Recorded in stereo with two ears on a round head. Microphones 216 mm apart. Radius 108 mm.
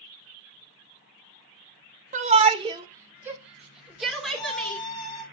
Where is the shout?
30° right (ahead or behind), 1.2 m; by 4.8 s 5° left (ahead or behind), 3 m.